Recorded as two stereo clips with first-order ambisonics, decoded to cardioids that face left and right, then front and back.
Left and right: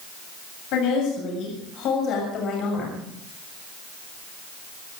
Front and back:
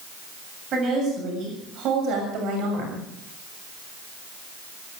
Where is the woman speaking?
120° left, 7.5 m; by 3.0 s 145° left, 6.5 m.